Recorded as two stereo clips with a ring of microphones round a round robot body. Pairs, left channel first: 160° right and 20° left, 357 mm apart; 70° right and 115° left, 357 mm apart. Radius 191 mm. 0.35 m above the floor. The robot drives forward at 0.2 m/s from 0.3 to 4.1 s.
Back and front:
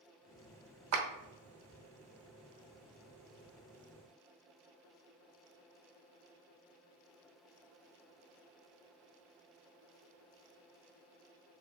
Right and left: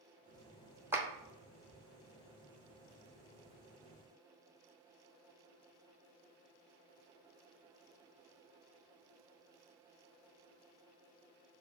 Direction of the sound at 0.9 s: 30° left.